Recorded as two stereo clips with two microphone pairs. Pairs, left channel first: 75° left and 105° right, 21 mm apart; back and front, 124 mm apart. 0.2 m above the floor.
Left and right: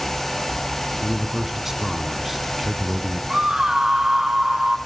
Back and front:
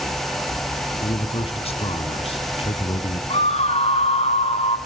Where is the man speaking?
175° right, 1.4 m.